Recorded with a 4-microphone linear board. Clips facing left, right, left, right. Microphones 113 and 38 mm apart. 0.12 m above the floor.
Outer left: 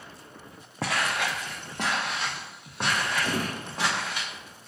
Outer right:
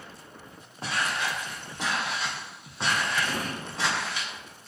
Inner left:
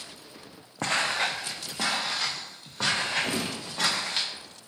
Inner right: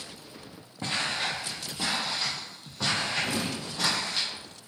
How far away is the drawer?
About 0.8 m.